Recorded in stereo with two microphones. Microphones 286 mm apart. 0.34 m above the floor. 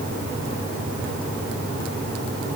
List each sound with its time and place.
Only background noise.